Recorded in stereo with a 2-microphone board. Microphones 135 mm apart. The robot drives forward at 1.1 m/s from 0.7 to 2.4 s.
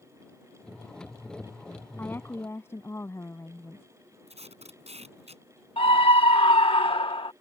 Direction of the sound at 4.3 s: 55° right (ahead or behind).